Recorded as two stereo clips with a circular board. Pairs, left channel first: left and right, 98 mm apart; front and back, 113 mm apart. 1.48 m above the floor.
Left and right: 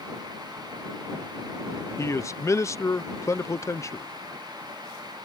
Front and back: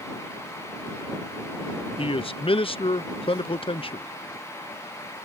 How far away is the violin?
No violin in this recording.